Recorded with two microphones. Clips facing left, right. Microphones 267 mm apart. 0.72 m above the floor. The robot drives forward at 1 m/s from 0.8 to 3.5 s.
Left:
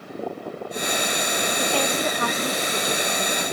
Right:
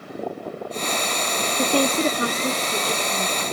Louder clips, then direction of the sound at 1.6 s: Right 6 dB; 50° right (ahead or behind).